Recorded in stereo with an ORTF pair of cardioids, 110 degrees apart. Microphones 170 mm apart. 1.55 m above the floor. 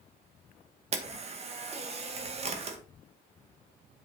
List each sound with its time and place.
0.9 s a camera shutter: 40° right, 1.8 m